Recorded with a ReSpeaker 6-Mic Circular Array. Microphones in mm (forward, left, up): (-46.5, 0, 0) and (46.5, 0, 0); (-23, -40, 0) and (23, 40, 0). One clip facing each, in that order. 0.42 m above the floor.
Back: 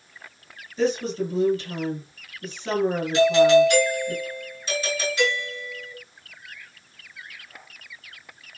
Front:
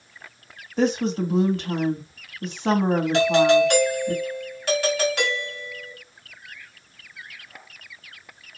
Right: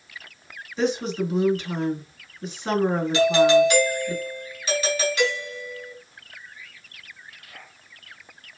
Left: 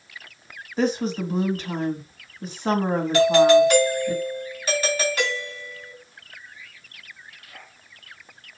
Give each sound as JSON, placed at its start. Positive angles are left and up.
{"t": 0.8, "sound": "a woman speaking", "azimuth_deg": 15, "distance_m": 3.0}
{"t": 3.1, "sound": "a doorbell", "azimuth_deg": 15, "distance_m": 3.5}